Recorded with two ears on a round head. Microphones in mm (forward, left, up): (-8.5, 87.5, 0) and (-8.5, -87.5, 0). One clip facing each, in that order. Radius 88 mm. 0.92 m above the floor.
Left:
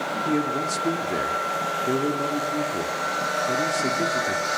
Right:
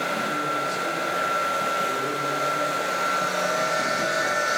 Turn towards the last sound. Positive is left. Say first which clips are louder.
# left 5 dB
turn(degrees=70)  # may be behind; listen again after turning